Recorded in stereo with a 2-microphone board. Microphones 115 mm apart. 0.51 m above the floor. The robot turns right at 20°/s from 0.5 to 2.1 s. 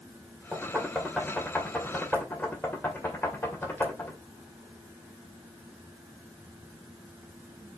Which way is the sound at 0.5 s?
10° right (ahead or behind).